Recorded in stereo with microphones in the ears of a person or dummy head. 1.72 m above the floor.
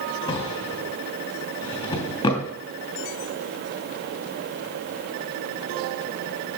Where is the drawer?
25° left (ahead or behind), 3.5 m.